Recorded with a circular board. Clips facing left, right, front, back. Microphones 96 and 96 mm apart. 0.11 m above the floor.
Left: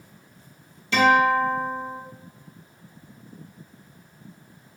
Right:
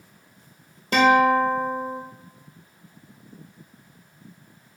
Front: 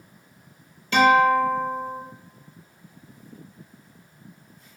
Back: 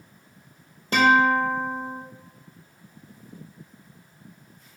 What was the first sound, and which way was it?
A guitar, 130° right.